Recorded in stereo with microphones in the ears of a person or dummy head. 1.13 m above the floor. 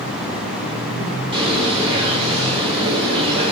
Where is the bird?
30° right (ahead or behind), 1.8 m.